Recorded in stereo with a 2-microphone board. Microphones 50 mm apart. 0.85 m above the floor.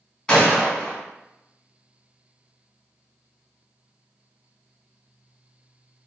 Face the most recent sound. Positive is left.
turn(degrees=15)  # may be behind; listen again after turning